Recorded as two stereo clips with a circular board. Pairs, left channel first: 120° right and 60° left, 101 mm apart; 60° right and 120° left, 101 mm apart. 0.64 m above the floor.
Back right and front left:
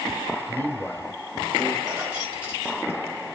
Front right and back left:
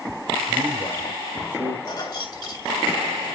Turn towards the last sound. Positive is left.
turn(degrees=-20)